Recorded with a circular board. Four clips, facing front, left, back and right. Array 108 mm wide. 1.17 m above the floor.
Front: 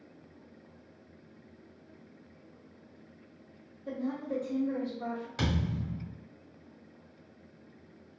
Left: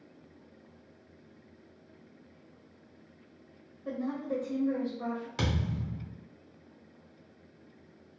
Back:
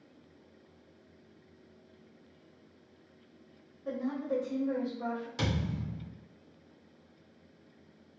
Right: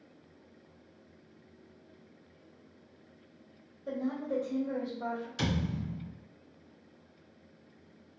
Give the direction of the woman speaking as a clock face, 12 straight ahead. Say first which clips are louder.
Even, back 1 dB; 8 o'clock.